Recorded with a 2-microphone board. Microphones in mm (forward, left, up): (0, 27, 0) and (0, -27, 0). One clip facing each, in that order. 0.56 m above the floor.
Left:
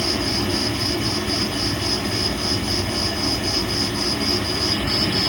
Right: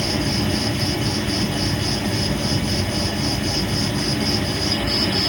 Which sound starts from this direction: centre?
An insect, at 0.0 s.